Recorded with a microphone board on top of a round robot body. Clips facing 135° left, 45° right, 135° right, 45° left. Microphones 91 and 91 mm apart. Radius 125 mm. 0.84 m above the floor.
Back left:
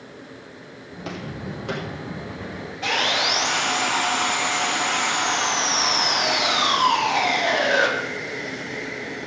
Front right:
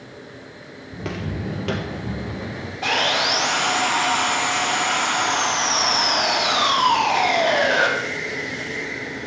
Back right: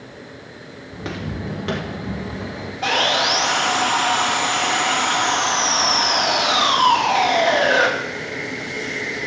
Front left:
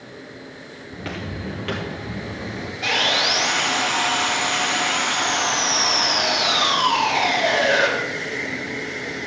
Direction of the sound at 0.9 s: 75° right.